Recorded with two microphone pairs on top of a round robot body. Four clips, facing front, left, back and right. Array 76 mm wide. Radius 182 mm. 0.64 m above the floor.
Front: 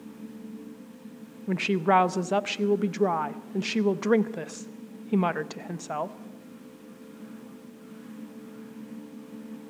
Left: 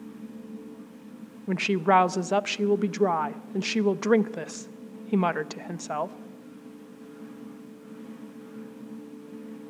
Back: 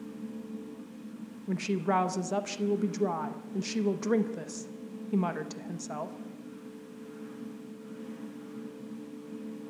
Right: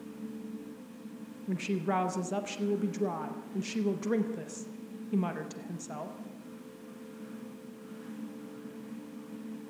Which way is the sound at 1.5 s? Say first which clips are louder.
Left 10 dB, front 6 dB; 65° left.